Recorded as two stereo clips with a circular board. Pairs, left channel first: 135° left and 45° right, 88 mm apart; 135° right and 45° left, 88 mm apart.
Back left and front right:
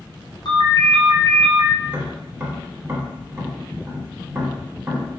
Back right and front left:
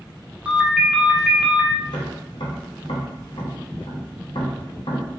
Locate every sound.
0.5 s a ringtone: 120° left, 0.6 m
1.8 s tapping: 115° right, 0.9 m